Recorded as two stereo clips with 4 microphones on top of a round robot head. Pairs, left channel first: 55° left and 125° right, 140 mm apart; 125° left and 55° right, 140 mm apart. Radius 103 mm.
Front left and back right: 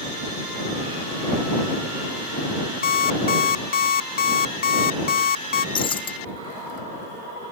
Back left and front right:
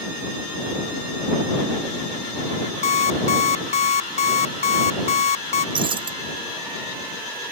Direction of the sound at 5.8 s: Straight ahead.